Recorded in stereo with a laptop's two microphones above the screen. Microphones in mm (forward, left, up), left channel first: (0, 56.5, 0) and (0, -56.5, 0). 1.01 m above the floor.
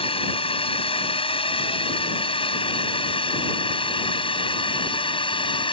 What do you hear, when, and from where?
0.0 s a drone: 55° left (ahead or behind); by 5.7 s 50° left (ahead or behind)